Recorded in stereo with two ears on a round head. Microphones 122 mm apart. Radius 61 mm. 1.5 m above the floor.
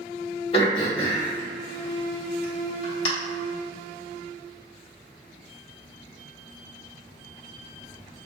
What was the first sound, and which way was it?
Throat clearing, 40° left (ahead or behind).